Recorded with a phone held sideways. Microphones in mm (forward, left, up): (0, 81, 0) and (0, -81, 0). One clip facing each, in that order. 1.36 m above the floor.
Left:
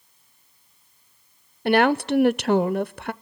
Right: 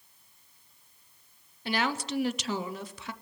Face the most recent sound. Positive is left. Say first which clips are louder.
# left 12 dB
turn(degrees=60)  # may be behind; listen again after turning